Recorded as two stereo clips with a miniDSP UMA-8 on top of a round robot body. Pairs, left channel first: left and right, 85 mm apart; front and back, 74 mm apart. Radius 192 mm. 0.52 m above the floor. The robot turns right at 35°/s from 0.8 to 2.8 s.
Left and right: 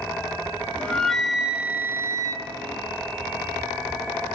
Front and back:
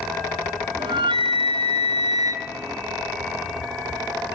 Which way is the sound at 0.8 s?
165° left.